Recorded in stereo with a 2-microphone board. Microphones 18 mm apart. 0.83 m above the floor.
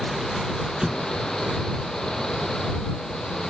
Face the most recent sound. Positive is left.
turn(degrees=-30)  # may be behind; listen again after turning